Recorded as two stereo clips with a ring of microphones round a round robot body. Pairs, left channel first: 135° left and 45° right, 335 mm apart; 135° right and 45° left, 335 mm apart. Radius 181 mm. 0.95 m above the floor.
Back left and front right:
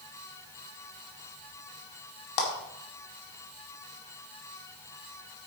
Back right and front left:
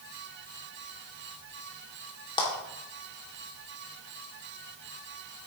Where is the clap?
150° left, 2.5 m.